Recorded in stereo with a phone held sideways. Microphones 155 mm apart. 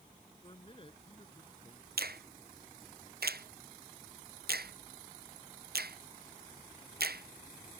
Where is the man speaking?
35° left (ahead or behind).